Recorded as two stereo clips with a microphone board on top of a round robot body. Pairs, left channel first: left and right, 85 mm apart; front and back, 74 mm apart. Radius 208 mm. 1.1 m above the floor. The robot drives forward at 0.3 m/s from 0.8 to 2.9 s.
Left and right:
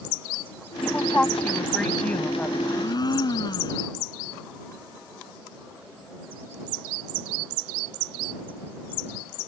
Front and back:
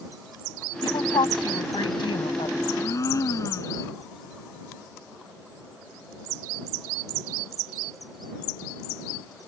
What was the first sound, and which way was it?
A woman speaking, 10° left.